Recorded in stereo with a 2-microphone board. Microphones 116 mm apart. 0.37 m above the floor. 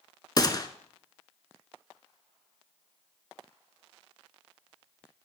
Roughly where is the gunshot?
Left.